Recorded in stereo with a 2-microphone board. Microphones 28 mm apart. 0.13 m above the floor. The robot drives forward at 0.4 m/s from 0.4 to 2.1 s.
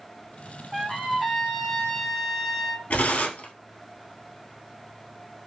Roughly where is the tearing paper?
Left.